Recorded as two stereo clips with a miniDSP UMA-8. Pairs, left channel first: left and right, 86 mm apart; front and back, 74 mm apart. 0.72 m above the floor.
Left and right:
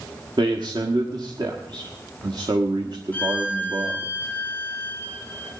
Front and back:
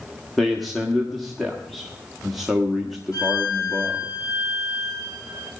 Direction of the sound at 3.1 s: 20° left.